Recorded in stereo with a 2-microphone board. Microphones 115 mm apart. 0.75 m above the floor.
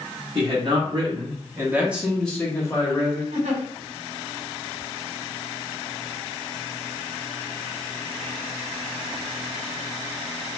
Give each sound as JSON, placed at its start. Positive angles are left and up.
{"t": 0.3, "sound": "a man speaking", "side_deg": -45, "distance_m": 1.3}
{"t": 3.3, "sound": "a giggle", "side_deg": -80, "distance_m": 1.6}